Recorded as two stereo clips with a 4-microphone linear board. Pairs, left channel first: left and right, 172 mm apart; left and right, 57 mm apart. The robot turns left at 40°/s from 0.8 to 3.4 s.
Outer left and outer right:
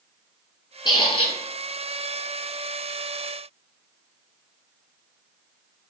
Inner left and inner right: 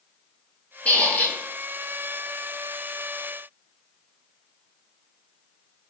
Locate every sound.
0.8 s a squeak: 25° left (ahead or behind), 0.7 m; by 1.4 s 35° left (ahead or behind), 0.7 m